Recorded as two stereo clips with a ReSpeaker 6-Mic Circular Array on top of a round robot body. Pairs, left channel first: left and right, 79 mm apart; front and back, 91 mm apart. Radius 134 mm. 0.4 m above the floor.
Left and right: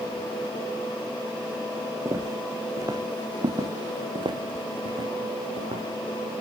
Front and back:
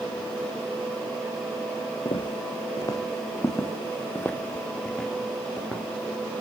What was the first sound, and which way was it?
Footsteps, 35° right.